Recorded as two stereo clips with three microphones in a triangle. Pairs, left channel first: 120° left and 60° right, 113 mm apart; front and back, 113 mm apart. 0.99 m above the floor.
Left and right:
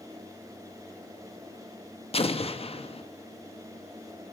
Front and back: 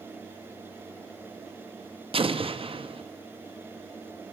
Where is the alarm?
No alarm in this recording.